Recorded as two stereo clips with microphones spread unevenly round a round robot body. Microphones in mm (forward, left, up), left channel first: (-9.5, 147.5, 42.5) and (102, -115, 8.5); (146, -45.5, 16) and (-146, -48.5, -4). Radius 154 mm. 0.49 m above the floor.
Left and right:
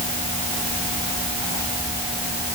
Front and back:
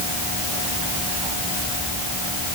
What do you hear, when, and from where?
Only background noise.